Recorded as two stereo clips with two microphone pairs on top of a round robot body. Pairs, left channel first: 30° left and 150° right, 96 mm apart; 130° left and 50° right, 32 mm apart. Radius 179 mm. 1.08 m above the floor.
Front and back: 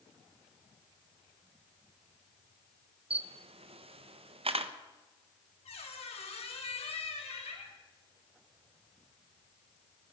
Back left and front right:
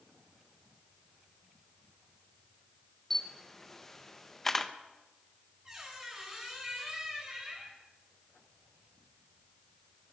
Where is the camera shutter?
145° right, 1.4 m.